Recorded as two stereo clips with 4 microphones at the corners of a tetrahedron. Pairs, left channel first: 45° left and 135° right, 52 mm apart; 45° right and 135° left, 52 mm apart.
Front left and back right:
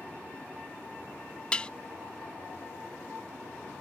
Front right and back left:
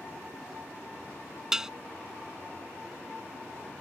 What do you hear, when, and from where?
1.5 s dishes clattering: 80° left